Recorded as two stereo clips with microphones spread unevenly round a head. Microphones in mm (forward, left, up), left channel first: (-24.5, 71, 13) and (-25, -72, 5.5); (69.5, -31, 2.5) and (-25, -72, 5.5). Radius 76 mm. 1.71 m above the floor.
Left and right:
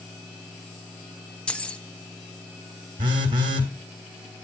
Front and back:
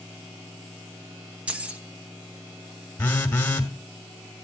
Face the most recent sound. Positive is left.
turn(degrees=-35)